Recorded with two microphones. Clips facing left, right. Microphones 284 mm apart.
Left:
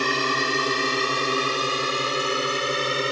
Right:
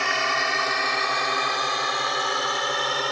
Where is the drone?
40° left (ahead or behind); by 3.1 s 30° left (ahead or behind).